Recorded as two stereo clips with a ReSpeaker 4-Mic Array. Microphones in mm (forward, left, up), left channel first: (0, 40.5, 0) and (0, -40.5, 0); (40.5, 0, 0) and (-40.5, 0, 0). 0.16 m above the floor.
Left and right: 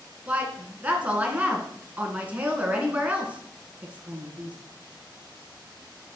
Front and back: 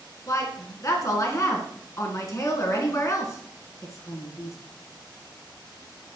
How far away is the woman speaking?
About 2 m.